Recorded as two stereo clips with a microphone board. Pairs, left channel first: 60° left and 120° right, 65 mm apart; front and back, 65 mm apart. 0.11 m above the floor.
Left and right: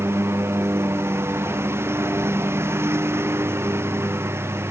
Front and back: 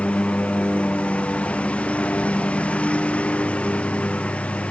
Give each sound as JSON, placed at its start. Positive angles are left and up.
{"t": 0.0, "sound": "a lawn mower", "azimuth_deg": -70}